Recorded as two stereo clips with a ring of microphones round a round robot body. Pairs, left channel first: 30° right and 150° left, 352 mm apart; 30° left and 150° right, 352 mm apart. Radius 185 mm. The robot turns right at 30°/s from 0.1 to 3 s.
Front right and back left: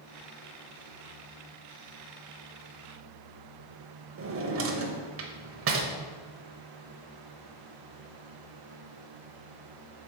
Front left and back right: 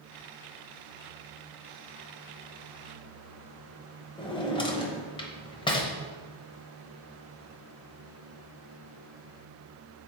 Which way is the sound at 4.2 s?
105° left.